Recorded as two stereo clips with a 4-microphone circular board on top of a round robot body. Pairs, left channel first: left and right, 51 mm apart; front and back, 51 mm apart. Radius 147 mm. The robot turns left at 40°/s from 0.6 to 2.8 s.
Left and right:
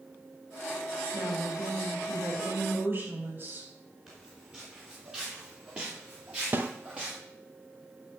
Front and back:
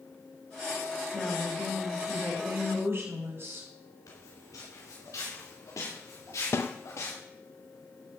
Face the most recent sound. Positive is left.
turn(degrees=-40)